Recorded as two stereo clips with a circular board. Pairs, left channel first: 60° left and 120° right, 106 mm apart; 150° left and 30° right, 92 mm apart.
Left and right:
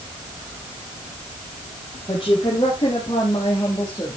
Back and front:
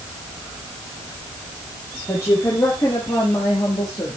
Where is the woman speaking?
90° left, 3.5 m; by 4.2 s 110° left, 3.5 m.